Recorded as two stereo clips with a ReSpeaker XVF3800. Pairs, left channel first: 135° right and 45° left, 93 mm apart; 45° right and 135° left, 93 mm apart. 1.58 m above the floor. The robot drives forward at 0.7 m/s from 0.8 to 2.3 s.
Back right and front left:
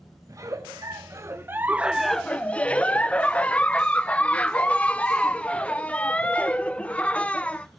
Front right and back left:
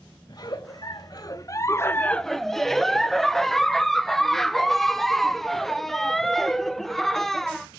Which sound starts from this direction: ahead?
A giggle, at 0.3 s.